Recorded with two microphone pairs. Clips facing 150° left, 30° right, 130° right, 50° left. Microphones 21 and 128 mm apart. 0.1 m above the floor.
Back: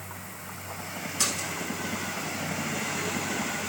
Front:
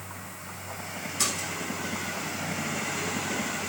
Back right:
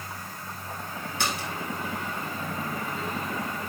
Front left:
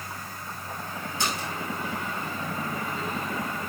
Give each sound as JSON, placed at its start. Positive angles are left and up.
{"t": 1.2, "sound": "a splash", "azimuth_deg": -120, "distance_m": 4.0}